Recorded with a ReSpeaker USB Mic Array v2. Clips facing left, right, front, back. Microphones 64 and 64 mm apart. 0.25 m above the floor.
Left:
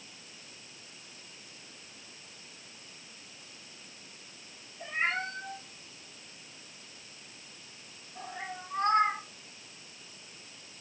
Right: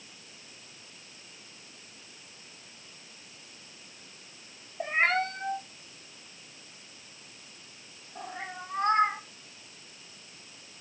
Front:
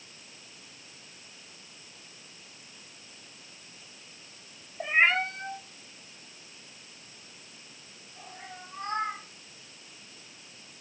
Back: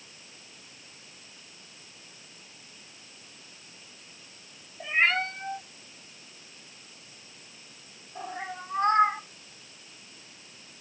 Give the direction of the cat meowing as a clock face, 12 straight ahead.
2 o'clock.